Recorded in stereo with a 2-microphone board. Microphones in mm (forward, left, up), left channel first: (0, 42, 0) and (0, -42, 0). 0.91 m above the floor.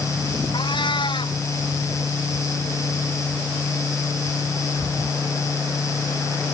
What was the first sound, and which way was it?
A cat meowing, 75° left (ahead or behind).